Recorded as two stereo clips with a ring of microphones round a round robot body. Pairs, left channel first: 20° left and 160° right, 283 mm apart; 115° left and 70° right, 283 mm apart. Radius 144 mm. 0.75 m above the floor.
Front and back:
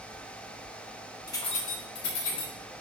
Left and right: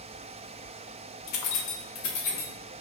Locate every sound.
1.3 s keys jangling: 105° left, 0.6 m; by 2.5 s 65° left, 1.0 m